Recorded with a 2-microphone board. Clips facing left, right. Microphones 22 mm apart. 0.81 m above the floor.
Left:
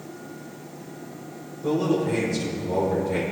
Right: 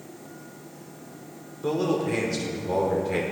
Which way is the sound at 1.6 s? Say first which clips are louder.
Left 2 dB; 35° right (ahead or behind).